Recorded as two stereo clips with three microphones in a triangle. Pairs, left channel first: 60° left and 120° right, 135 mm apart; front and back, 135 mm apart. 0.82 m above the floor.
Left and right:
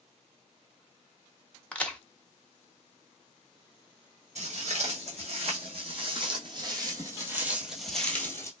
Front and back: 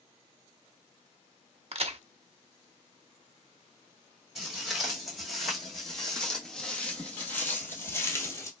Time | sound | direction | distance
1.7 | a crack | 140° left | 0.7 m
4.3 | footsteps | 90° right | 2 m